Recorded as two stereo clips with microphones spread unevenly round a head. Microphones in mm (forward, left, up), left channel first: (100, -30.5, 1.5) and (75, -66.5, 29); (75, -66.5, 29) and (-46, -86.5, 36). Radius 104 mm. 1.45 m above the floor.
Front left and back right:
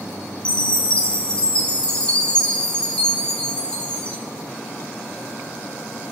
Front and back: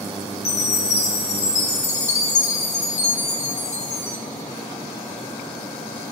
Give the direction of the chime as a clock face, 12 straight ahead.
12 o'clock.